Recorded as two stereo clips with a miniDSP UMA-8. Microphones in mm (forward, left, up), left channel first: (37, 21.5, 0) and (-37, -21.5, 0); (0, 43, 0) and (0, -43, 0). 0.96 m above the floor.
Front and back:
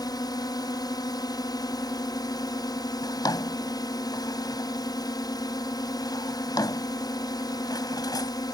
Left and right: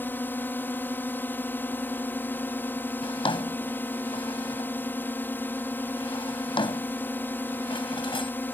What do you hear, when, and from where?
0.0 s a drone: 30° left
3.0 s a drawer: 70° left